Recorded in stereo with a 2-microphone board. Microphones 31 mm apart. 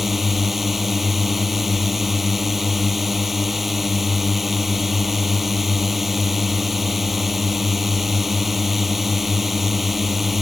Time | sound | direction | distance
0.0 | a drone | 5° right (ahead or behind) | ?